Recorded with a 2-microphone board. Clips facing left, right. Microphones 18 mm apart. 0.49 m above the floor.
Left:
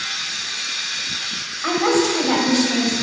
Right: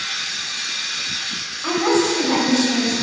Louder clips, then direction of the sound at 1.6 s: Even; 30° left (ahead or behind).